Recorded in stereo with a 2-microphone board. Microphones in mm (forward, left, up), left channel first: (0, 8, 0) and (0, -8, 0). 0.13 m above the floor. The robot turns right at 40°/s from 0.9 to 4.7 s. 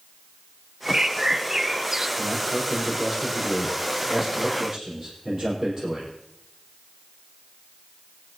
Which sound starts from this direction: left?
A man speaking, at 2.2 s.